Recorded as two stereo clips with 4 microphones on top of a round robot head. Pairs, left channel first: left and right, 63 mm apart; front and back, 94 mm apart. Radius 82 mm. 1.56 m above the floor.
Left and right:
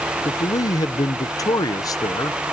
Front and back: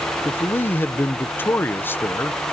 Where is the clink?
I don't hear a clink.